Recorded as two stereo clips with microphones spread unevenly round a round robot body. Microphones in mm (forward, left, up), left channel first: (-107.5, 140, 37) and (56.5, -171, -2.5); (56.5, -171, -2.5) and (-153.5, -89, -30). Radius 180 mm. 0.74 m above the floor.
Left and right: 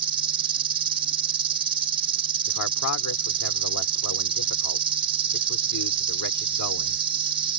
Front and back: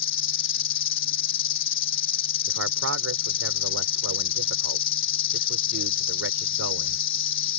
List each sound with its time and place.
0.0 s an insect: 5° left
2.5 s a man speaking: 165° left